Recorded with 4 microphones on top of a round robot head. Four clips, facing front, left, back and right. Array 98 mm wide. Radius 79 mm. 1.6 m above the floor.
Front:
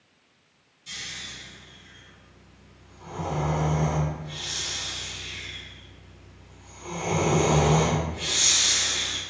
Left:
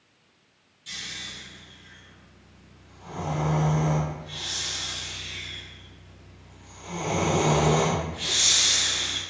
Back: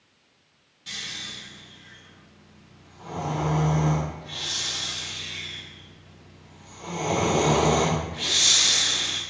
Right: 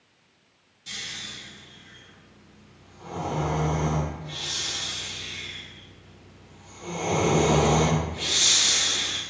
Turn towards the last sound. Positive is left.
turn(degrees=-155)